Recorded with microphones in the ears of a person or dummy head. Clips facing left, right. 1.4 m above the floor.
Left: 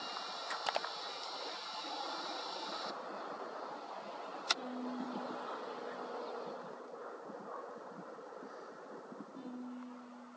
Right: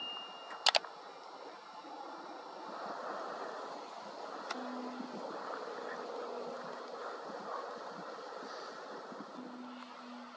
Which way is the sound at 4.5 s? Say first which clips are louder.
Left 2 dB; 85° right.